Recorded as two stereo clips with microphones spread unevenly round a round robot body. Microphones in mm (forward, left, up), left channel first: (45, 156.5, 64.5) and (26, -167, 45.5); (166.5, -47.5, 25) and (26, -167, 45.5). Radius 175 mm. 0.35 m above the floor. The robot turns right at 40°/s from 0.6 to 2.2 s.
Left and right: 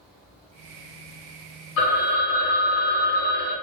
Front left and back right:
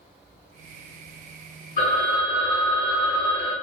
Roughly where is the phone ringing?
Left.